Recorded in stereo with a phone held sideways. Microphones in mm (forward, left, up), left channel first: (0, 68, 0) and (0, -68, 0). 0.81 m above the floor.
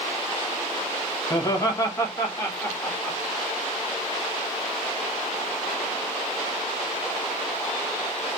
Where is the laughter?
25° left (ahead or behind), 0.8 m; by 3.2 s 20° left (ahead or behind), 1.7 m.